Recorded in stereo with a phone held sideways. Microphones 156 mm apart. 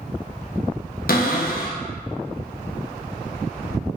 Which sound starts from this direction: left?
A cupboard door, at 1.1 s.